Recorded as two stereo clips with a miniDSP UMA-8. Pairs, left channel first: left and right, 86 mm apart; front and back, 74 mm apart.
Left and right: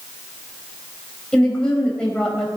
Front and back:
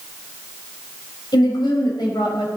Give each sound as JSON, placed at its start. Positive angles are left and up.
{"t": 1.3, "sound": "a woman speaking", "azimuth_deg": 10, "distance_m": 5.0}